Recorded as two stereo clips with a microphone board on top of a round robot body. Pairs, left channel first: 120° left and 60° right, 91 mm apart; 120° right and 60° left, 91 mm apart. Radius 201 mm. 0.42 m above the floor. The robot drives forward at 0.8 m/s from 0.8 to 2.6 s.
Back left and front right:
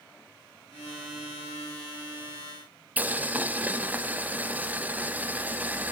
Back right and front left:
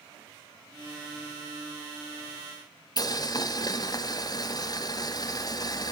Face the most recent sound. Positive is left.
turn(degrees=-125)